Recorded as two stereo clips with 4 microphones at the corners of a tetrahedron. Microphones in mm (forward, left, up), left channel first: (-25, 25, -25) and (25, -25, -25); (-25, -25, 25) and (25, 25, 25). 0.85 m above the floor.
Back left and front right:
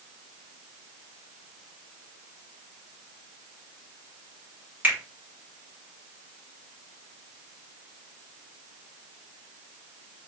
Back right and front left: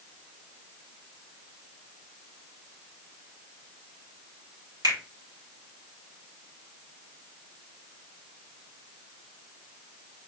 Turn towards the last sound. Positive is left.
turn(degrees=20)